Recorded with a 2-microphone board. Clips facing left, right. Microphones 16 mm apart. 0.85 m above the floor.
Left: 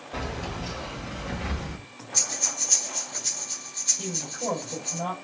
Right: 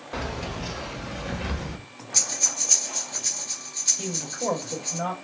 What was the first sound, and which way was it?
Keys jangling, 55° right (ahead or behind).